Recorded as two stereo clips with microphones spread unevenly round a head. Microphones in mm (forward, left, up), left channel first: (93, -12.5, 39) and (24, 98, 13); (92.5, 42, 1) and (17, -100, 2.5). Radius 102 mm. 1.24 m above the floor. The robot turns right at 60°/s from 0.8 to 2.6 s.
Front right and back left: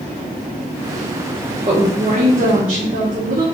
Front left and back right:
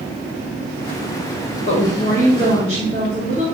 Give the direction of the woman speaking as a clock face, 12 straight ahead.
9 o'clock.